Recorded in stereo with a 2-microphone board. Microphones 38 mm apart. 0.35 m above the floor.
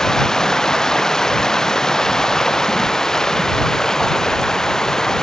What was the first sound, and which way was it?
Running water, 15° left (ahead or behind).